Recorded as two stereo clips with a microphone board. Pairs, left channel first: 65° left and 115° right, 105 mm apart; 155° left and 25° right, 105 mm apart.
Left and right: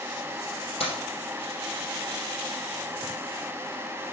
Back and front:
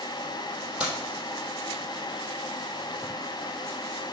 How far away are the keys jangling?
About 3 m.